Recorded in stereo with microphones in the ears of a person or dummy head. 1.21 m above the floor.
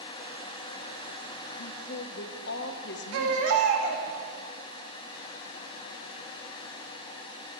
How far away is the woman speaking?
About 0.9 m.